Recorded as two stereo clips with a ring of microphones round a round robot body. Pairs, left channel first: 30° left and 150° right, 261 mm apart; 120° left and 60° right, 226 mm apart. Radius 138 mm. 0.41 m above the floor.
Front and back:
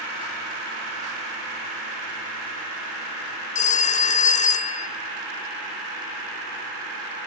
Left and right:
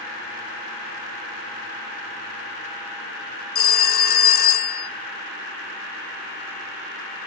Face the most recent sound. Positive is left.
turn(degrees=85)